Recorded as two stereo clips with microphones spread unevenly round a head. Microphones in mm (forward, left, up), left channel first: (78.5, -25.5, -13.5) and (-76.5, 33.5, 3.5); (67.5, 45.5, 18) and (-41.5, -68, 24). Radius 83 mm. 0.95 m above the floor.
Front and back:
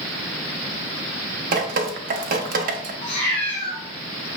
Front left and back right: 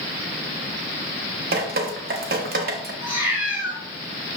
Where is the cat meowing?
70° right, 2.0 m.